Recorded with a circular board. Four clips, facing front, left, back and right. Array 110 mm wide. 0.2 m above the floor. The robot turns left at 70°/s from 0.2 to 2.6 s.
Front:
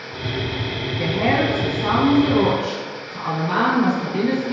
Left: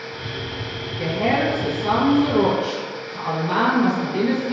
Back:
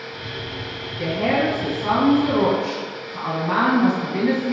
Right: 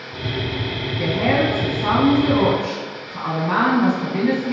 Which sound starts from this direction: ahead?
A woman speaking, at 1.0 s.